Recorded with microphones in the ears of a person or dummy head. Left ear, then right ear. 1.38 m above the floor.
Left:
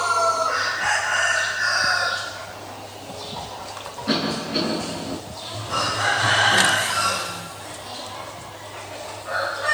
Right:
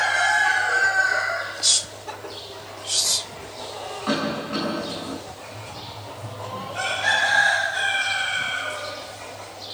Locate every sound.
4.1 s a cough: 50° right (ahead or behind), 6.5 m